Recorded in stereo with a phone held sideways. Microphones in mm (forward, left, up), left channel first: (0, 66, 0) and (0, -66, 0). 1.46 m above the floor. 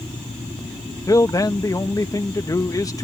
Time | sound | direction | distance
1.1 | a man speaking | 25° left (ahead or behind) | ?